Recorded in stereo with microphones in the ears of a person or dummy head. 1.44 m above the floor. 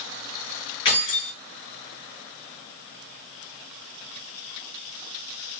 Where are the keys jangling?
25° left (ahead or behind), 1.6 m.